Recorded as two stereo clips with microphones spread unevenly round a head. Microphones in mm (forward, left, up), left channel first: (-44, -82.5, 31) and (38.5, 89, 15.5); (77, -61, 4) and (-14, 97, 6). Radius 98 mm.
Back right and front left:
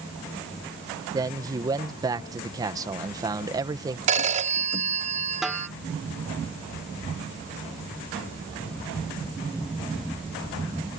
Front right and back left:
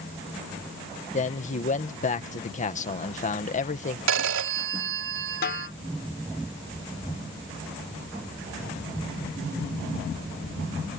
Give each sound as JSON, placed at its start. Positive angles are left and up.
{"t": 1.1, "sound": "a man speaking", "azimuth_deg": -10}
{"t": 4.1, "sound": "a phone ringing", "azimuth_deg": 120}
{"t": 5.4, "sound": "a snare drum", "azimuth_deg": -25}